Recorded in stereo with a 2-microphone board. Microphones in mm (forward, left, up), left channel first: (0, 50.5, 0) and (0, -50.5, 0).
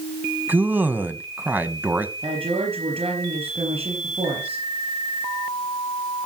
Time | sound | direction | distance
0.5 | a man speaking | 15° right (ahead or behind) | 1.2 m
2.2 | a woman speaking | 75° right (ahead or behind) | 4 m